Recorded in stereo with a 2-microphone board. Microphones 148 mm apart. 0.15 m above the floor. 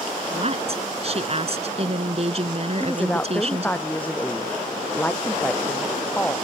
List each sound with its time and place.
0.3 s a woman speaking: 45° right (ahead or behind)
2.8 s a woman speaking: 10° left (ahead or behind)